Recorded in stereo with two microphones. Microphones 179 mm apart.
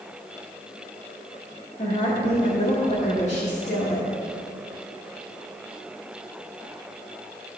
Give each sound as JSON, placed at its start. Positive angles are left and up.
{"t": 1.8, "sound": "a woman speaking", "side_deg": 40, "distance_m": 1.6}